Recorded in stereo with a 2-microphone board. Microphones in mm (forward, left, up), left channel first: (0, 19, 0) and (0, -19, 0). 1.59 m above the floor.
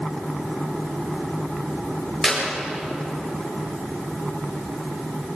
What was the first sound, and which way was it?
A clap, 20° left (ahead or behind).